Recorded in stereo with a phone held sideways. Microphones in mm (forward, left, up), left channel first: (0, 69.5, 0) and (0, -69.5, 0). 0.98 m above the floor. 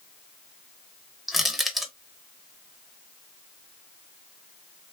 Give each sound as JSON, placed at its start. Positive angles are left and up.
{"t": 1.3, "sound": "crushing", "side_deg": 0, "distance_m": 0.9}